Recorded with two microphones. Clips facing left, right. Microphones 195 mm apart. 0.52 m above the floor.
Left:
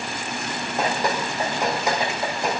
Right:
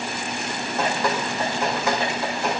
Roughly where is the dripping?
Centre.